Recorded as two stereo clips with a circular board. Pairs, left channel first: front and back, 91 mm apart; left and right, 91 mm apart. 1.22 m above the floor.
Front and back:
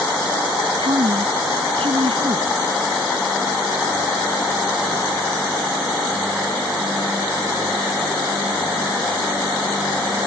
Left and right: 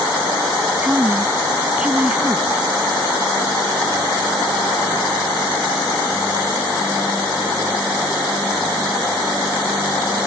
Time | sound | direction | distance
0.8 | a woman speaking | 165° right | ?